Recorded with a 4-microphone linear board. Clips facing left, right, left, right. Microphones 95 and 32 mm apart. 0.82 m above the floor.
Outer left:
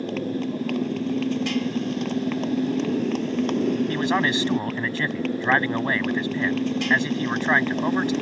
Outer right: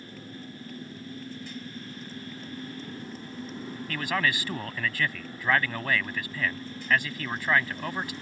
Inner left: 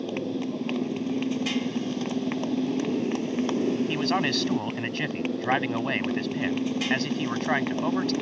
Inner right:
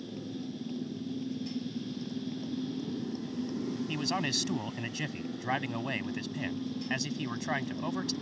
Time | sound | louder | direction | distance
0.0 | a motorcycle | outer left 16 dB, inner left 10 dB | 85° left | ?
3.9 | a man speaking | outer left 7 dB, inner left 7 dB | 25° left (ahead or behind) | ?